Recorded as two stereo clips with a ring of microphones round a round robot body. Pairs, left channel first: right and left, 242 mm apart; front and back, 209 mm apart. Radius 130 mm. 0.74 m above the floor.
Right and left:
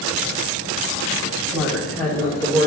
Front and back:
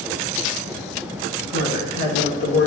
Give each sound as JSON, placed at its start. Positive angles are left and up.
{"t": 1.5, "sound": "a woman speaking", "azimuth_deg": 10, "distance_m": 1.4}